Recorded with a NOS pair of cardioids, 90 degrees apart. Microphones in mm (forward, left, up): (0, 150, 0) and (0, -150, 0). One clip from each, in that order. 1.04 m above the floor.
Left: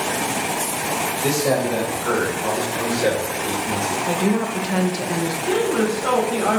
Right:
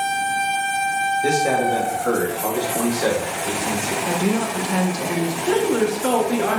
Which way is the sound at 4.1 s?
5° left.